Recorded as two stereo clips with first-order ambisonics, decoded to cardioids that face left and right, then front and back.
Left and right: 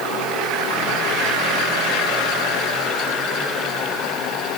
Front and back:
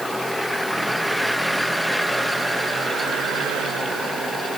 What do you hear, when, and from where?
Only background noise.